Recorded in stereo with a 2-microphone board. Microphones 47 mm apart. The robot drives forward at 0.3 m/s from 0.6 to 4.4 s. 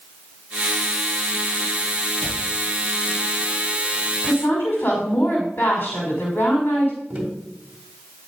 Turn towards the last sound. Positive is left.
turn(degrees=-25)  # may be behind; listen again after turning